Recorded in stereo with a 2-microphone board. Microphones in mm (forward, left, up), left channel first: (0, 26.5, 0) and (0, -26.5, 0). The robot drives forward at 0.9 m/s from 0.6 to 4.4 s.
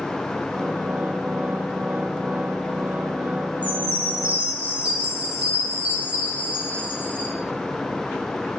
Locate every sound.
3.6 s a chime: 30° right (ahead or behind), 5.5 m; by 7.3 s 25° right (ahead or behind), 6 m